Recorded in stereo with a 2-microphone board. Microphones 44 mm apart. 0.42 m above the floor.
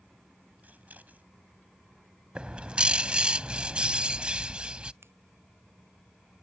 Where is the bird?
25° right (ahead or behind).